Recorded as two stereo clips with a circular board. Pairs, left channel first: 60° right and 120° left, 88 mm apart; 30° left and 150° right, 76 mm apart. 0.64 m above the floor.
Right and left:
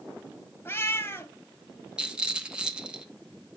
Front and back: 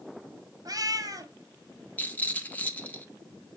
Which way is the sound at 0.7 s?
125° right.